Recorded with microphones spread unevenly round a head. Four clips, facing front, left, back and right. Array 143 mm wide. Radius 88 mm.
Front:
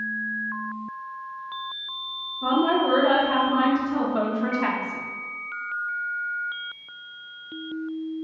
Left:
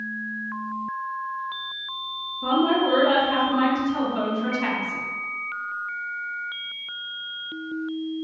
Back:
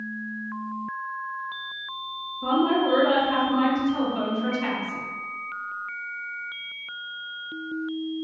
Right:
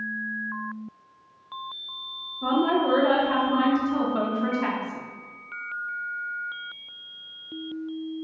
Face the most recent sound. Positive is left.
turn(degrees=45)